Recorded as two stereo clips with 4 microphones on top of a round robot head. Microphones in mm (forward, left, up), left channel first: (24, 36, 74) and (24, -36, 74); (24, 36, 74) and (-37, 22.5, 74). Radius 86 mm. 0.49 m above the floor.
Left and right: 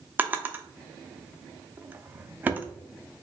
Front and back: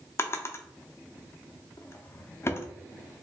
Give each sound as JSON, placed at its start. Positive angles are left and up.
{"t": 0.2, "sound": "a drawer", "azimuth_deg": -25, "distance_m": 0.5}